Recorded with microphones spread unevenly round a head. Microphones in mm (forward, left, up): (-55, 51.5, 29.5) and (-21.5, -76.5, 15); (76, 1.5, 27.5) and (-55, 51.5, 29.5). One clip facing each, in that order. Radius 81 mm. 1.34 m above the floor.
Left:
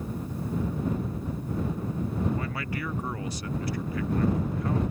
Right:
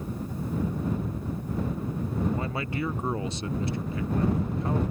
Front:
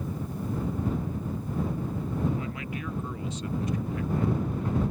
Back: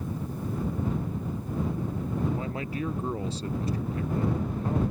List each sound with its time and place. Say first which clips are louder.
2.3 s a man speaking: right 2 dB, back 2 dB; 140° right